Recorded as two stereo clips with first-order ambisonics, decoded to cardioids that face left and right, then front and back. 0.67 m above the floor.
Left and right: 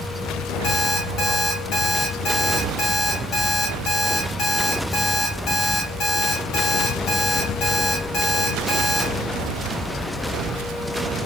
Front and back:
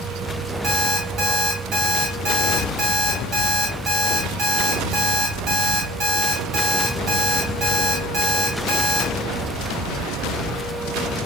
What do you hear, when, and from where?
0.6 s an alarm clock: 140° left, 1.7 m